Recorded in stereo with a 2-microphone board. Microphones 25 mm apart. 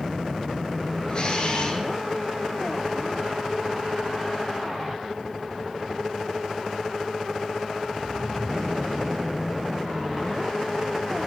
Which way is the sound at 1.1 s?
45° left (ahead or behind).